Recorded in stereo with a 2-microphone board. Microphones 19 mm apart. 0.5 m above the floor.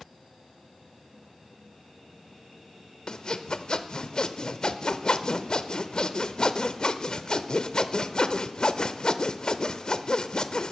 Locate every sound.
3.1 s sawing: 50° left (ahead or behind), 0.6 m